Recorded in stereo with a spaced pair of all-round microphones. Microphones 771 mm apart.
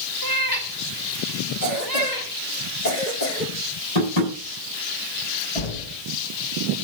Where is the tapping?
55° left (ahead or behind), 7.5 m.